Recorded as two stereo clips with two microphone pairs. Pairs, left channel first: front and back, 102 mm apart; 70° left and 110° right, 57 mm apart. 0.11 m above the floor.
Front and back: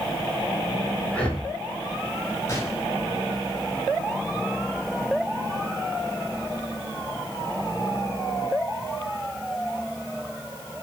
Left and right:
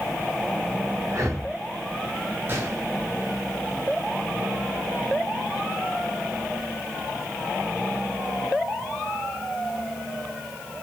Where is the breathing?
75° right, 6.5 m.